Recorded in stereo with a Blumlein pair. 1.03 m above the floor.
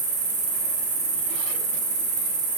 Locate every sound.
0.0 s an insect: 55° right, 0.9 m